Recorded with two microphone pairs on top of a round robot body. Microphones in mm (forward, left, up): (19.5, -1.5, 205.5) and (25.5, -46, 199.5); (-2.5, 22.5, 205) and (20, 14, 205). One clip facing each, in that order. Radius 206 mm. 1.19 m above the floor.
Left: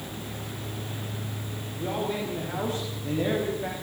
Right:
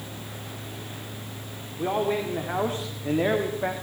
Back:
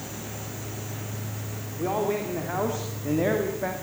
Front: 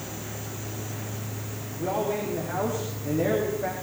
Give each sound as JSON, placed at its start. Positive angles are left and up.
{"t": 1.8, "sound": "a man speaking", "azimuth_deg": -135, "distance_m": 4.0}